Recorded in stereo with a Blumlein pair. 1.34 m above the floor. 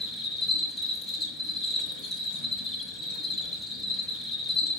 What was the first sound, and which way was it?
An insect, 15° left.